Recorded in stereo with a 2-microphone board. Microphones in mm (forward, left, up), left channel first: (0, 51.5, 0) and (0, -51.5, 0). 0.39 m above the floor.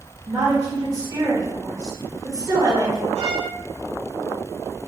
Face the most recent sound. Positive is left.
turn(degrees=-75)  # may be behind; listen again after turning